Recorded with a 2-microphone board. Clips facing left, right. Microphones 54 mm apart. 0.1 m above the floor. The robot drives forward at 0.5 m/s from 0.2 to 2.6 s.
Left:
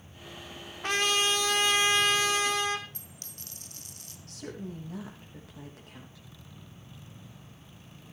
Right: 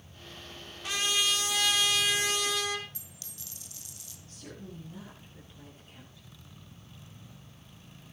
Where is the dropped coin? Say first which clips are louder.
Left 2 dB; 45° left (ahead or behind), 2 m.